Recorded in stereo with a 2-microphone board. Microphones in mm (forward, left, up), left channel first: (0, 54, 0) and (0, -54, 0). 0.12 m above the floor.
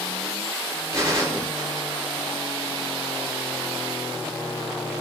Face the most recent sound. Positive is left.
turn(degrees=-30)  # may be behind; listen again after turning